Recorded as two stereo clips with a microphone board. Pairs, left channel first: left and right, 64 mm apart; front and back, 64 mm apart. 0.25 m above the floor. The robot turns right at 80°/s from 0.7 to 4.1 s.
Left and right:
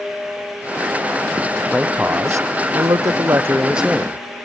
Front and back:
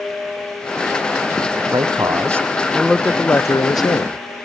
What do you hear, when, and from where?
1.7 s a man speaking: 175° right; by 4.2 s 15° left